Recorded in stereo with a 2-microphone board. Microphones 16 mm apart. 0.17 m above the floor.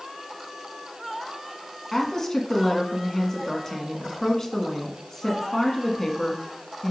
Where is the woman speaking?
30° left (ahead or behind), 1.4 m.